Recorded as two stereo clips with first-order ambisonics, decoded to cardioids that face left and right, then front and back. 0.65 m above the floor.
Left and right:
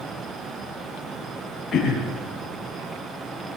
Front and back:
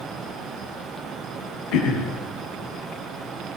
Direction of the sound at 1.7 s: 20° left.